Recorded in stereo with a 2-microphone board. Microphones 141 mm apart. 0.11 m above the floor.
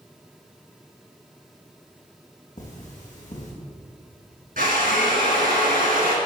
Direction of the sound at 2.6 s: 60° left (ahead or behind).